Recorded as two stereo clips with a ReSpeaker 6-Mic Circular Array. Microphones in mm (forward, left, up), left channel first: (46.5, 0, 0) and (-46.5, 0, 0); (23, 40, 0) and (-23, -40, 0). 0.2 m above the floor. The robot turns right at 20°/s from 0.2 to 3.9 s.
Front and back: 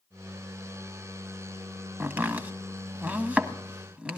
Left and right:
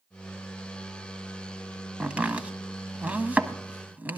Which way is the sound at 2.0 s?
170° right.